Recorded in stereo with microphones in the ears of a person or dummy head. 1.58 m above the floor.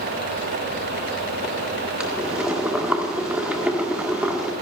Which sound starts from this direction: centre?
Boiling, at 2.0 s.